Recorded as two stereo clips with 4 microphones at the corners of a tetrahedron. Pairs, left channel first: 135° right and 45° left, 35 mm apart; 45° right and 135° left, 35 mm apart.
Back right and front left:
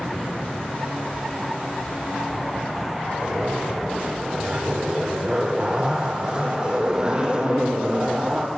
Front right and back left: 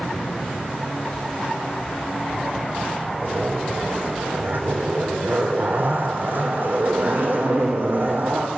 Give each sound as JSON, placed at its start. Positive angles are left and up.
{"t": 3.2, "sound": "a zipper", "azimuth_deg": 105, "distance_m": 3.0}